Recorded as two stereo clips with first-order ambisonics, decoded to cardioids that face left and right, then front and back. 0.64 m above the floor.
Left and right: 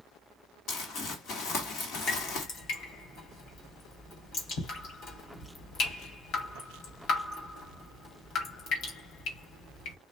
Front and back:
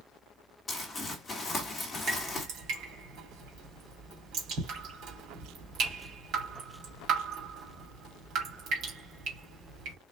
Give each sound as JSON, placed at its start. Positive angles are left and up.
{"t": 0.7, "sound": "crumpling", "azimuth_deg": 75, "distance_m": 1.6}
{"t": 2.1, "sound": "dripping", "azimuth_deg": 140, "distance_m": 2.5}